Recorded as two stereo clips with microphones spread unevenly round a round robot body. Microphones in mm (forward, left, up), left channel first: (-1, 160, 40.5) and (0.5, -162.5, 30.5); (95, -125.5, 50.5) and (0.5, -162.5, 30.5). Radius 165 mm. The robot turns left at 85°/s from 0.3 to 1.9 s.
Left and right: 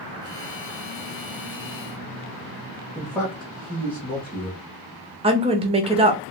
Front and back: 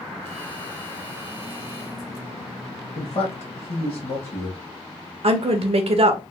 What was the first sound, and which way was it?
A man speaking, straight ahead.